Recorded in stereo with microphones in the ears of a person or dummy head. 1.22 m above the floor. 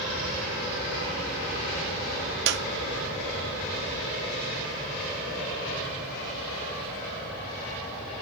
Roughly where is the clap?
Right.